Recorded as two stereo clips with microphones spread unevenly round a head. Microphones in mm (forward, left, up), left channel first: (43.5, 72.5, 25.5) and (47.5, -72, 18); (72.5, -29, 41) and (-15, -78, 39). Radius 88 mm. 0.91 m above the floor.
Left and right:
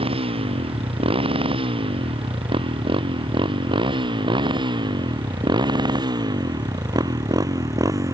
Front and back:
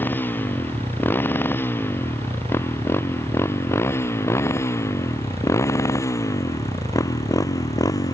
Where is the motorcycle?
40° right; by 8.1 s 20° right.